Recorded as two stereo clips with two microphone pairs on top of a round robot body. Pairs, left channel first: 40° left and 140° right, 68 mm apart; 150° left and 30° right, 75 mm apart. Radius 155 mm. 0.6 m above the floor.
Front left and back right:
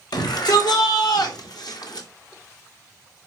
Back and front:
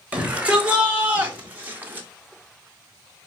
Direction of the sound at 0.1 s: 40° left.